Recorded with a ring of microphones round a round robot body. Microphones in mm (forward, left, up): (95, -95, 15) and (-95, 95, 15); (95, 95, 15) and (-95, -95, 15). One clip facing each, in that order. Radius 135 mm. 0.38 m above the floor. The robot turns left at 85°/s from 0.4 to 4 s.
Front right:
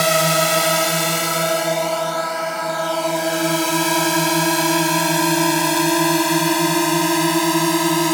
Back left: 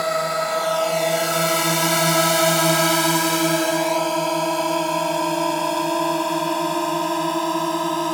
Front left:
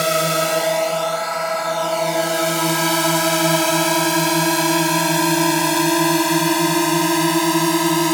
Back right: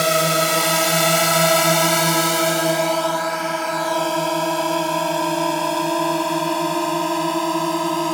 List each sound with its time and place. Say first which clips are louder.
0.0 s a drone: front right 5 dB, even; 45° right; by 8.1 s straight ahead